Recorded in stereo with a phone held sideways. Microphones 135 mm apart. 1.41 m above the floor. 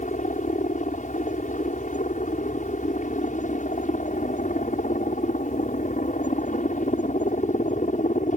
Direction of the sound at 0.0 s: 70° left (ahead or behind).